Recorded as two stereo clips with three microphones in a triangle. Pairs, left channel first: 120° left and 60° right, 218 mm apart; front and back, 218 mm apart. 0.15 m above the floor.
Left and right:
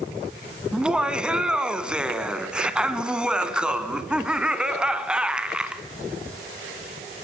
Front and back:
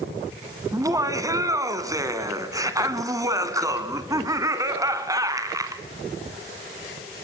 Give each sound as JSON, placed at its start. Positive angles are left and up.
{"t": 0.7, "sound": "laughter", "azimuth_deg": -140, "distance_m": 1.2}